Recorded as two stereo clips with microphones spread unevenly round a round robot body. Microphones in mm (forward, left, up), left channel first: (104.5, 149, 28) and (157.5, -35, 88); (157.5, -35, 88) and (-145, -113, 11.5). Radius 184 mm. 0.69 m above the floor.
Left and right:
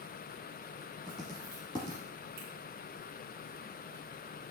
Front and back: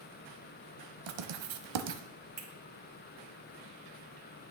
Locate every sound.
1.1 s writing: 165° right, 0.7 m
2.4 s a finger snap: 115° right, 2 m